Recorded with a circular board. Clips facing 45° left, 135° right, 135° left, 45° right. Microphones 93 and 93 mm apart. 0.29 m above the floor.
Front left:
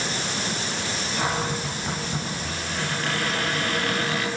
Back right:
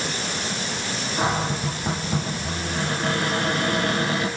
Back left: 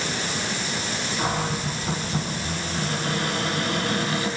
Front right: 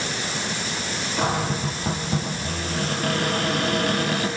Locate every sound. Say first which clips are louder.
1.2 s a cupboard door: back right 3 dB, front right 3 dB; 70° right, 7.5 m